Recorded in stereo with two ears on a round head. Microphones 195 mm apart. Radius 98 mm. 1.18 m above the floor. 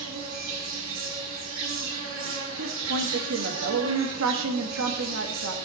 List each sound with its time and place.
0.0 s an insect: 65° right (ahead or behind), 3 m
2.6 s a woman speaking: 65° right (ahead or behind), 1.7 m